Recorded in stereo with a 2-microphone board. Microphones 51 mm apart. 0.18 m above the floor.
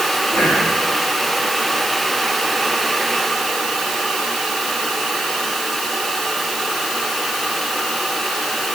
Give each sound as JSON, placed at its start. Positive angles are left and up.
{"t": 0.3, "sound": "whispering", "side_deg": 30, "distance_m": 4.5}